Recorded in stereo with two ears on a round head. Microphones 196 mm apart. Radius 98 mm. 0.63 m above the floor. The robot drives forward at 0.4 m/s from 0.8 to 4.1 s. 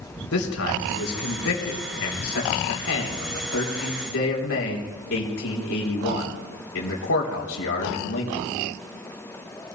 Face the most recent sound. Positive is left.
turn(degrees=70)  # may be behind; listen again after turning